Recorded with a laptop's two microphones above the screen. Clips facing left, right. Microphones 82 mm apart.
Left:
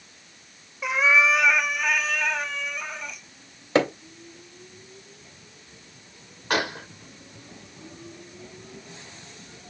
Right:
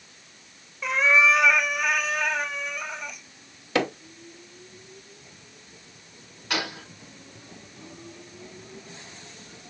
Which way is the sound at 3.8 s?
30° left (ahead or behind).